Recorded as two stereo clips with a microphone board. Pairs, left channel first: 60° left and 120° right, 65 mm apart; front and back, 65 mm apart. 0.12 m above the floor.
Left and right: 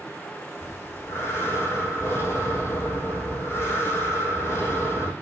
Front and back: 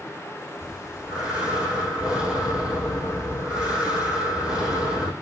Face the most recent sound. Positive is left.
turn(degrees=100)